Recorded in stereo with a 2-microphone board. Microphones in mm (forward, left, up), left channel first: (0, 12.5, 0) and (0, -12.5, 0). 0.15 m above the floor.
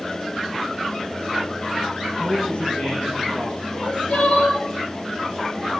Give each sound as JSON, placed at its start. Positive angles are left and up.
{"t": 2.2, "sound": "a man speaking", "side_deg": 40, "distance_m": 4.0}
{"t": 3.7, "sound": "crying", "side_deg": 60, "distance_m": 4.0}